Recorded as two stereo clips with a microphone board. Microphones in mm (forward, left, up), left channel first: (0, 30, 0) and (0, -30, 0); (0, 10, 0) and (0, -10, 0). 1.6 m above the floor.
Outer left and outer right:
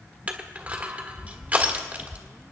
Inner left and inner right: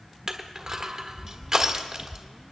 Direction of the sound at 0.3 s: 25° right (ahead or behind).